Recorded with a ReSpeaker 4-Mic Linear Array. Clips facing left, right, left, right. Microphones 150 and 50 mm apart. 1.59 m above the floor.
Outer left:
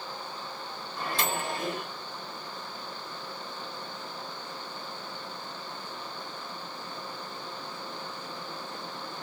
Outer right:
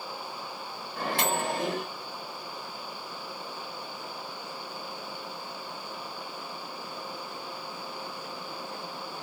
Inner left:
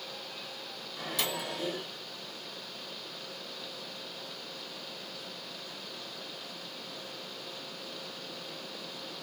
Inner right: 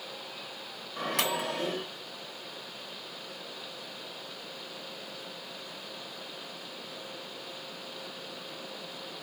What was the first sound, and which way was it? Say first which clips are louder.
A microwave: outer right 3 dB, inner right 5 dB; 65° right (ahead or behind).